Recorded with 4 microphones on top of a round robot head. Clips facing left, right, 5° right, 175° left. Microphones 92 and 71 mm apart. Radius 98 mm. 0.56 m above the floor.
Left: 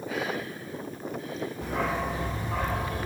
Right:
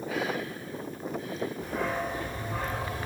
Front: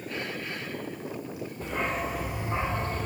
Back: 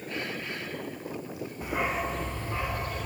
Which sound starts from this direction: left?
A dog barking, at 1.6 s.